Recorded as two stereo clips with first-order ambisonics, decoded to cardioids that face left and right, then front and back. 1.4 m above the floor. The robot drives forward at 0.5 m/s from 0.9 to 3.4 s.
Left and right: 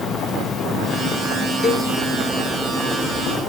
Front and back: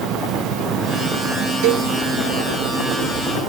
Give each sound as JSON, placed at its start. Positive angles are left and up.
{"t": 0.0, "sound": "an insect", "azimuth_deg": 145, "distance_m": 1.2}
{"t": 1.6, "sound": "a cowbell", "azimuth_deg": 165, "distance_m": 2.0}